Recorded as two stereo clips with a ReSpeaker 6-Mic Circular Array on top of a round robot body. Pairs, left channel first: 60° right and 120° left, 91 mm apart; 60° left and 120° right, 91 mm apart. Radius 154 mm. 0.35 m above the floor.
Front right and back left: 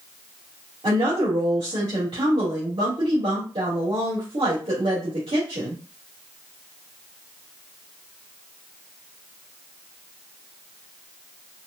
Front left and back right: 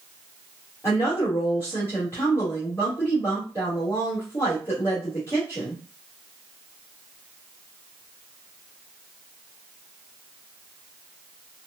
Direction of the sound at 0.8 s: 115° left.